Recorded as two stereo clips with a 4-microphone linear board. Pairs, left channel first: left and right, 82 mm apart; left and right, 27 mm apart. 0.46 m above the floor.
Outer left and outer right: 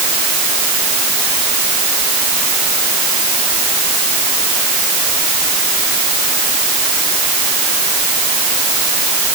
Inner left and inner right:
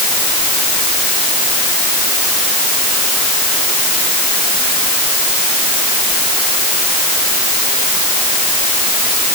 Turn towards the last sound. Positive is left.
No sound to turn to.